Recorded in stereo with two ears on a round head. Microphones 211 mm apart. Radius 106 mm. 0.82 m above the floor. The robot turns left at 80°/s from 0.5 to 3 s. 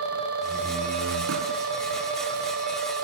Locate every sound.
0.4 s a door slam: 5° right; by 1.7 s 100° right